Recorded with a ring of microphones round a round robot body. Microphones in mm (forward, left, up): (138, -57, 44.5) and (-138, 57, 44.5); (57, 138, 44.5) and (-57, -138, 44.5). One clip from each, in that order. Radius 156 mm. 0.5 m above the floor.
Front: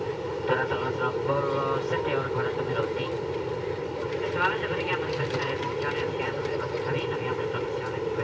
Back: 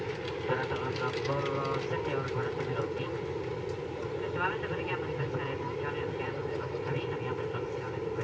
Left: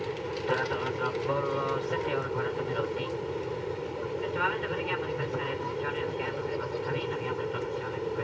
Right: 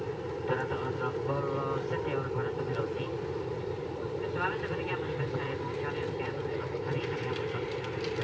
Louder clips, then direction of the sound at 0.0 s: Front 5 dB, left 2 dB; 30° left.